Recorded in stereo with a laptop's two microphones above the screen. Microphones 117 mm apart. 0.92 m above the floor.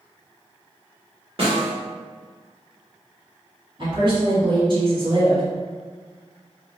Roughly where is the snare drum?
Right.